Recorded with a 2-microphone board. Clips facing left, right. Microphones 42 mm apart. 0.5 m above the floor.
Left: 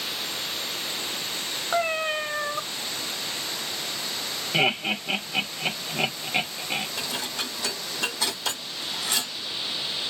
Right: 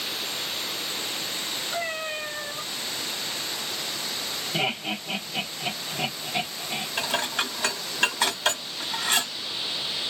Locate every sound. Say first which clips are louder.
1.7 s a cat meowing: left 7 dB; 75° left (ahead or behind), 1.4 m
4.5 s laughter: left 5 dB; 45° left (ahead or behind), 1.2 m
7.0 s dishes clattering: right 4 dB; 55° right (ahead or behind), 1.1 m